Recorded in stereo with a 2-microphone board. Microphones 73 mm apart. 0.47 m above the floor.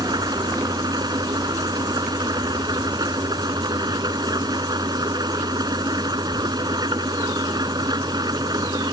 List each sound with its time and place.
0.0 s an engine running: 70° right (ahead or behind)